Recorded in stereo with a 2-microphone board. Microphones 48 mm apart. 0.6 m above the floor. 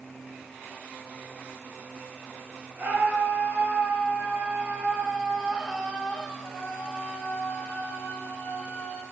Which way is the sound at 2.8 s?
50° right (ahead or behind).